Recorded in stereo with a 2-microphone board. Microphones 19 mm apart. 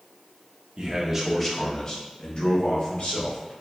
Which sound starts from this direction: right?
A man speaking, at 0.8 s.